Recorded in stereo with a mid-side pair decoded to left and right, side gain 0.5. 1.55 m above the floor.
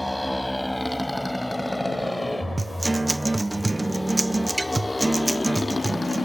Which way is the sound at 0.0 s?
Straight ahead.